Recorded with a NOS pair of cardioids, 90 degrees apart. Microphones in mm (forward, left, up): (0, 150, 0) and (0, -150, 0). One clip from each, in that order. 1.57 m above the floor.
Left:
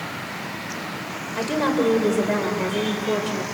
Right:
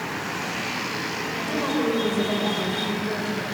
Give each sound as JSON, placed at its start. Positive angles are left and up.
{"t": 1.4, "sound": "a woman speaking", "azimuth_deg": 50, "distance_m": 5.5}